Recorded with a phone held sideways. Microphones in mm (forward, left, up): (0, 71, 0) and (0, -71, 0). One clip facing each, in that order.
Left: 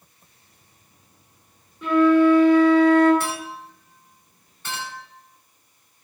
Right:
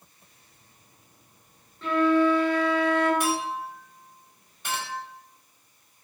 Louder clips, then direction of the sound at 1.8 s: Left 6 dB; 15° left (ahead or behind).